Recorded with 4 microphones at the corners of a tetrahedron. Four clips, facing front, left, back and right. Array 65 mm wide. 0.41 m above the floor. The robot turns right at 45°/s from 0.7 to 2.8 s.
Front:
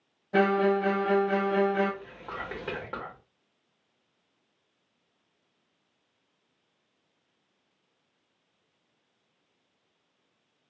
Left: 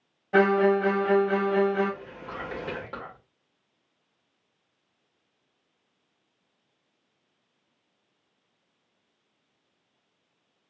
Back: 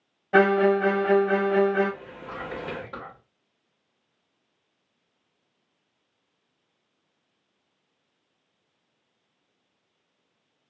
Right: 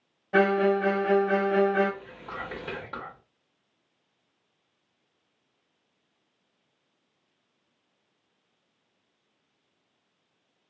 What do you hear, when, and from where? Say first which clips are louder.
0.3 s a violin: left 2 dB, back 5 dB; 175° left, 0.7 m; by 1.9 s 130° right, 0.7 m
2.0 s whispering: left 1 dB, back 2 dB; 20° right, 1.4 m; by 3.2 s 15° left, 1.4 m